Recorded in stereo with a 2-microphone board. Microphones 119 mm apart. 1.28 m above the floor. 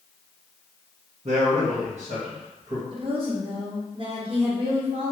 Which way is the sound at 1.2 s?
60° right (ahead or behind).